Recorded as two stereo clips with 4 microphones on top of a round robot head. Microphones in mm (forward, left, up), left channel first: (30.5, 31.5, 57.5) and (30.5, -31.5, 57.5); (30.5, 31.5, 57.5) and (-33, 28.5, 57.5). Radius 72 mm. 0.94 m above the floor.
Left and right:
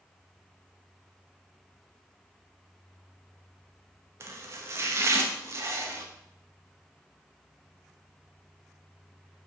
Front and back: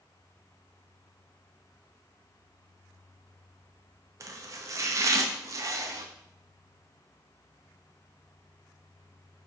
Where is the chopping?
140° right, 0.9 m.